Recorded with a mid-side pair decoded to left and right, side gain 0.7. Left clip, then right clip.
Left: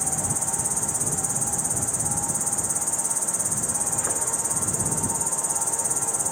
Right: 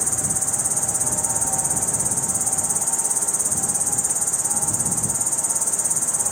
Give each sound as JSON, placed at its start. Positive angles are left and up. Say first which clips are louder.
{"t": 0.0, "sound": "an insect", "louder": "right 3 dB", "azimuth_deg": -15}